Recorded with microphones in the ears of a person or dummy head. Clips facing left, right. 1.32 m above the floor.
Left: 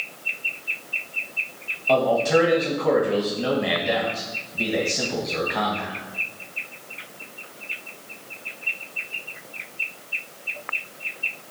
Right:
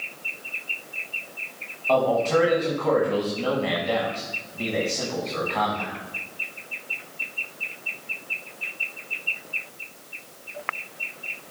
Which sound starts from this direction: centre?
A man speaking, at 1.9 s.